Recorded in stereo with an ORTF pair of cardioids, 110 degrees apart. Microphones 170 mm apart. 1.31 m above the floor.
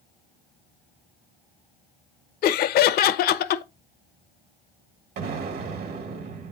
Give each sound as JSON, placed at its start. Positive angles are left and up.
{"t": 2.4, "sound": "laughter", "azimuth_deg": 65, "distance_m": 0.9}
{"t": 5.2, "sound": "an explosion", "azimuth_deg": -65, "distance_m": 1.5}